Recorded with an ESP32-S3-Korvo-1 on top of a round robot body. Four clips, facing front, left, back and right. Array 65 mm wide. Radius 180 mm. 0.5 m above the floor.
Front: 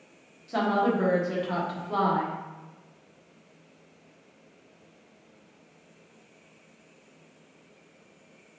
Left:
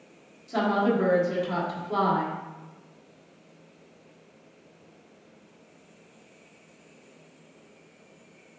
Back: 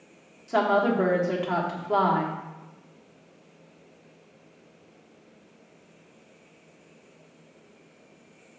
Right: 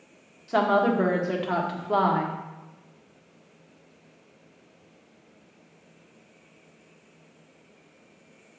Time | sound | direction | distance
0.5 | a woman speaking | 120° right | 1.6 m